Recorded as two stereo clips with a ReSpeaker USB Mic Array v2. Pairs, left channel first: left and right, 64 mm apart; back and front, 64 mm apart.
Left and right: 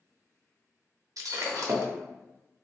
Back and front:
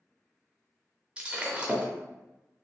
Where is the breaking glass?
70° right, 0.6 m.